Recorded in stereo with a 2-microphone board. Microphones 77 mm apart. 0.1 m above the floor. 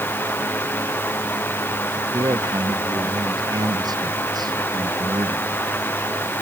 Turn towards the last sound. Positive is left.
turn(degrees=-60)  # may be behind; listen again after turning